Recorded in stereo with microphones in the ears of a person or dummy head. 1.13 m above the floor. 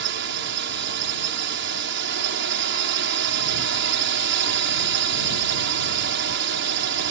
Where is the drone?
70° right (ahead or behind).